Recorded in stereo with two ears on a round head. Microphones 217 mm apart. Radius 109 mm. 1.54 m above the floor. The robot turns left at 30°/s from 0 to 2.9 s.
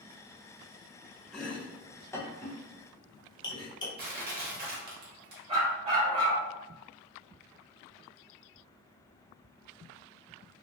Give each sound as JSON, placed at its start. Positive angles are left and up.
{"t": 1.3, "sound": "chopping", "side_deg": 0, "distance_m": 0.6}
{"t": 4.0, "sound": "crushing", "side_deg": -40, "distance_m": 1.0}
{"t": 5.5, "sound": "a dog barking", "side_deg": -25, "distance_m": 1.3}